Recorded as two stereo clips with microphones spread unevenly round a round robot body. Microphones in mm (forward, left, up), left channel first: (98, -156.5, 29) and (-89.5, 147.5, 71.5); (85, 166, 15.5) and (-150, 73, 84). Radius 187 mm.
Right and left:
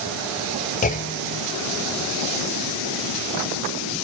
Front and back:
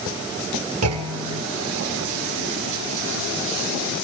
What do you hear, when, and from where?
0.8 s a clunk: 120° right, 2.5 m